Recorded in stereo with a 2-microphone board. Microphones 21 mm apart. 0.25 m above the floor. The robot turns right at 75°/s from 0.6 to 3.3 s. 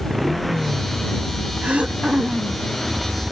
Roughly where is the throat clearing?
Right.